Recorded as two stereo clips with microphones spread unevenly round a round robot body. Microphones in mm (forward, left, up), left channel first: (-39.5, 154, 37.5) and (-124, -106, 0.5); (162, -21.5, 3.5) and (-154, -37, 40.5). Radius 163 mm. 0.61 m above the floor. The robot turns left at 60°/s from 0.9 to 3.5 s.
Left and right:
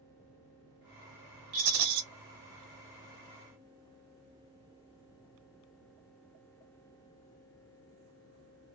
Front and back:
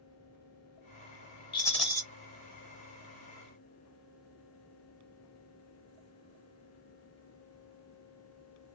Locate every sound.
1.5 s a rattle: 70° right, 0.9 m; by 2.0 s 100° right, 0.9 m